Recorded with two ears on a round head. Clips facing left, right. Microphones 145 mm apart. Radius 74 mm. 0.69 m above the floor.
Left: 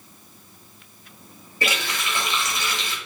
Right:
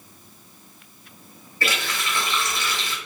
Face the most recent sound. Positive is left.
turn(degrees=15)  # may be behind; listen again after turning